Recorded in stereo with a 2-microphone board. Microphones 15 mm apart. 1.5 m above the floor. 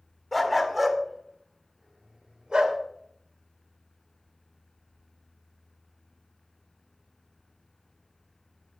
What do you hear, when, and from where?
0.3 s a dog barking: 10° left (ahead or behind), 1.8 m; by 2.8 s 55° right (ahead or behind), 2 m